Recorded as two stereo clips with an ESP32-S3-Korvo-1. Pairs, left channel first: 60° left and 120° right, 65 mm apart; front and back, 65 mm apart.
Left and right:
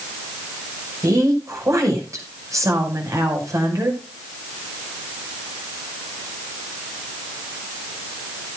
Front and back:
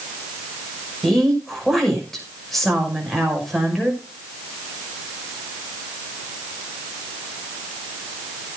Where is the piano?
I don't hear a piano.